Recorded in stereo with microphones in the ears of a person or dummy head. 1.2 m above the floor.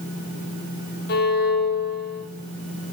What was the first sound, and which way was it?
A violin, 50° left (ahead or behind).